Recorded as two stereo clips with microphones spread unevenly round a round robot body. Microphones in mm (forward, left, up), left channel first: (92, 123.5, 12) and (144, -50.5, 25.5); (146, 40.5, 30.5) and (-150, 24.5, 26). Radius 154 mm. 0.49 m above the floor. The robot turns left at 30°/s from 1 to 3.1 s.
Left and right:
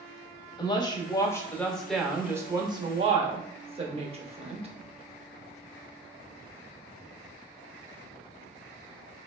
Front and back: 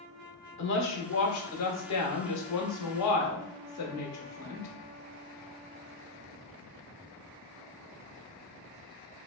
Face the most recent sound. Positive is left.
turn(degrees=-15)